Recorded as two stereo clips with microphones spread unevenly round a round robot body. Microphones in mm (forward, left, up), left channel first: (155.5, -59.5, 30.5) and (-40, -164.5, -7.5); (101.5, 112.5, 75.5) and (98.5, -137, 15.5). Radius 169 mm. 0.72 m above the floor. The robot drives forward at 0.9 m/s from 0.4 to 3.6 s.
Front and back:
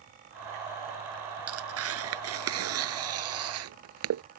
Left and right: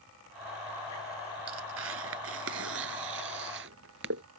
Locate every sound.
1.5 s tearing paper: 135° right; by 4.2 s 145° right